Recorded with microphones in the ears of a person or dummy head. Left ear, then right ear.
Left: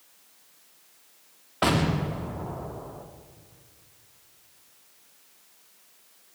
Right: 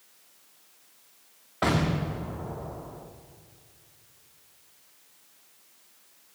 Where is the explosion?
10° left (ahead or behind), 1.1 m.